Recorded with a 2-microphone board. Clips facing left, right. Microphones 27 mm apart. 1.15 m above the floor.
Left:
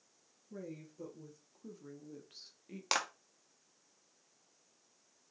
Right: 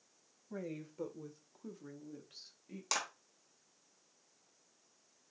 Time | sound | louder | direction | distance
0.5 | a woman speaking | right 3 dB | 65° right (ahead or behind) | 0.8 m
2.9 | a clap | left 4 dB | 30° left (ahead or behind) | 0.7 m